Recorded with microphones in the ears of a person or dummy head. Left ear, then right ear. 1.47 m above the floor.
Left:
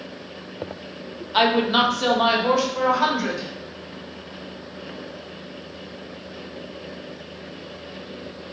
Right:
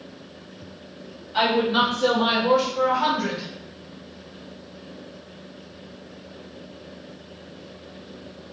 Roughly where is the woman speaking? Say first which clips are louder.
Left 2 dB; left.